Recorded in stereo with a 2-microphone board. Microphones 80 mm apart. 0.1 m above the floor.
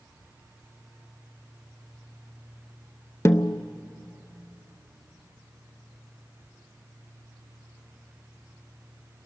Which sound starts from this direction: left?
A snare drum, at 3.2 s.